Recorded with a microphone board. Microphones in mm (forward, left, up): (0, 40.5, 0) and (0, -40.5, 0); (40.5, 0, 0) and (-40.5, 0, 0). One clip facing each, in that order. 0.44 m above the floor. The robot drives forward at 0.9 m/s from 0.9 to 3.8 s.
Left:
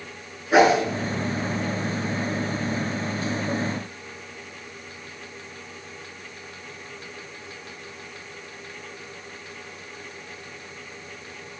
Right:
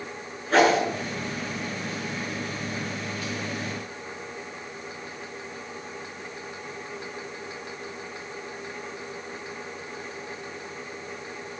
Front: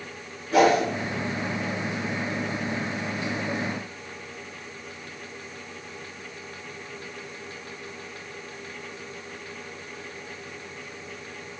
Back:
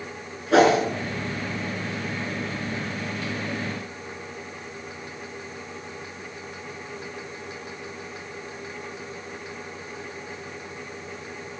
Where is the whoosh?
170° left, 5.5 m.